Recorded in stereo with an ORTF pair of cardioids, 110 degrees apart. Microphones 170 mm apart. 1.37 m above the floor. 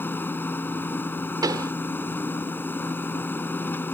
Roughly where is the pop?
Ahead.